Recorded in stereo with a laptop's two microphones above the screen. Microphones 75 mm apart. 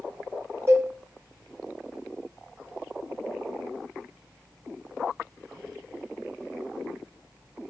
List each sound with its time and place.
0.7 s a cowbell: 40° right (ahead or behind), 3 m